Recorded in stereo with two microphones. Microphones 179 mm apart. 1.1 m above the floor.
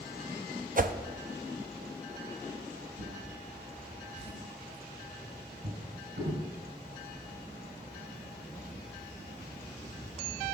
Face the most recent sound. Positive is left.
turn(degrees=-75)  # may be behind; listen again after turning